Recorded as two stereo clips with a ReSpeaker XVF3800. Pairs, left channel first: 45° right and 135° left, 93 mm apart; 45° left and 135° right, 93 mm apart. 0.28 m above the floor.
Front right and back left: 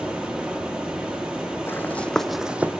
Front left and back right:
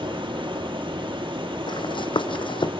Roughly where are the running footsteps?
Ahead.